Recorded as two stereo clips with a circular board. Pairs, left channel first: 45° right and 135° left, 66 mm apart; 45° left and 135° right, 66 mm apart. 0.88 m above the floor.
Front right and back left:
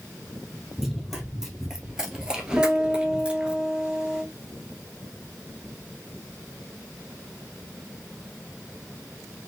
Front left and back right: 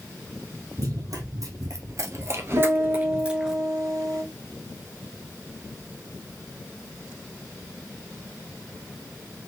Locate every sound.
0.8 s running footsteps: 140° right, 1.8 m; by 3.6 s 160° left, 0.8 m
2.6 s a piano: 150° right, 2 m